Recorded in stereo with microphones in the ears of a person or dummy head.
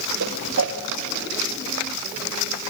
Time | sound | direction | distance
0.2 | a whoosh | 80° right | 1.0 m